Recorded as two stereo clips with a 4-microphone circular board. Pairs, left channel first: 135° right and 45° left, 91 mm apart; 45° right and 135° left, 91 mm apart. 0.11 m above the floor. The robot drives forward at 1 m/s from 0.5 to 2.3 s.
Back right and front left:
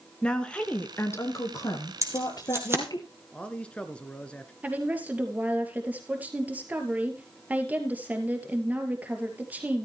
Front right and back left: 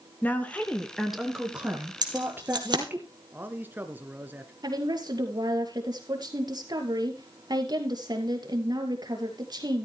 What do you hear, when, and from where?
0.2 s a woman speaking: 75° right, 1.4 m; by 3.0 s 165° right, 2 m
2.0 s keys jangling: 100° left, 2.5 m; by 2.8 s 105° left, 2.5 m
3.3 s a man speaking: 165° left, 1.1 m
4.6 s a woman speaking: 115° left, 2.5 m